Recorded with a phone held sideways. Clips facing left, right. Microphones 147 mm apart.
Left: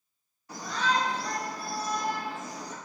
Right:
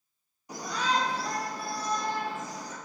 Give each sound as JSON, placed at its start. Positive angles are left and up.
{"t": 0.5, "sound": "a shout", "side_deg": -20, "distance_m": 2.5}